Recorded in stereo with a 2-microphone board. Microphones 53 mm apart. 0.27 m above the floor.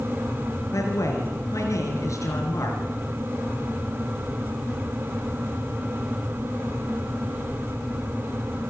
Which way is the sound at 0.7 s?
75° left (ahead or behind).